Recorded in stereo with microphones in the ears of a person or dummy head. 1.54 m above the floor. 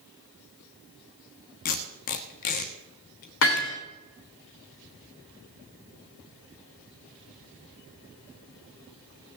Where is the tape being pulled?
35° left (ahead or behind), 1.2 m.